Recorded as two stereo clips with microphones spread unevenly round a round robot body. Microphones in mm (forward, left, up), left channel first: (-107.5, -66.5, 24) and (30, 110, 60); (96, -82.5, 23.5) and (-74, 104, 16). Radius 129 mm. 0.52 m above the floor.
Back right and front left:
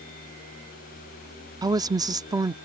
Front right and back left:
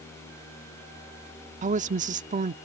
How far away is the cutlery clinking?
I don't hear cutlery clinking.